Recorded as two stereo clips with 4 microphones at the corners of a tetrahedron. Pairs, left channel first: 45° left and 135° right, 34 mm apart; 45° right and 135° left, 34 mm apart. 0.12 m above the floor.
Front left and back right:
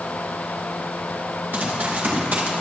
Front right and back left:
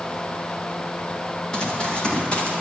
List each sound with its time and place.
1.5 s running footsteps: 115° right, 6 m; by 2.6 s 105° right, 6.5 m